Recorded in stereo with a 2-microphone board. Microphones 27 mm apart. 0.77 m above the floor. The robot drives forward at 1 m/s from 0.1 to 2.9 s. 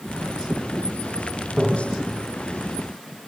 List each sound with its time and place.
1.6 s tapping: 25° right (ahead or behind), 1.0 m; by 1.9 s 20° right (ahead or behind), 1.1 m